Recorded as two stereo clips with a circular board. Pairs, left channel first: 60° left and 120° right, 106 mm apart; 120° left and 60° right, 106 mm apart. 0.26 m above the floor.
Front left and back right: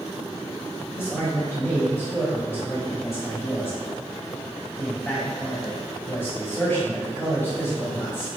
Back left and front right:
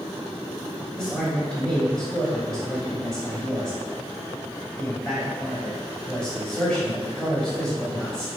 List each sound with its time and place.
1.0 s a man speaking: 50° left, 0.9 m